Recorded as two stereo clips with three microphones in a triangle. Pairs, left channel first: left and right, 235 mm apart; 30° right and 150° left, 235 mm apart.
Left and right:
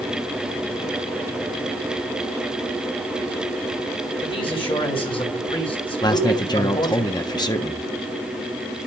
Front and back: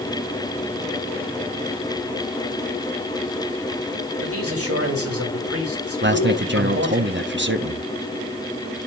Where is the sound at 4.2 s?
160° left, 3 m.